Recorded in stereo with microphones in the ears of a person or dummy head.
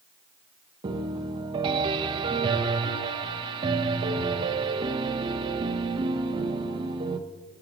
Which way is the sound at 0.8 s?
30° right (ahead or behind).